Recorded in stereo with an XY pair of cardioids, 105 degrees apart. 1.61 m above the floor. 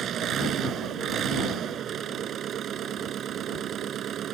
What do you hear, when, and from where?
0.0 s an engine running: 60° right